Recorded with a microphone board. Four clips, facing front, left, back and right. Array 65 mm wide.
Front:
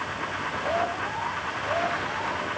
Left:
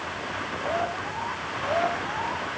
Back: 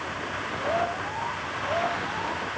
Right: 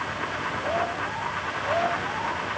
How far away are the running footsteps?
No running footsteps in this recording.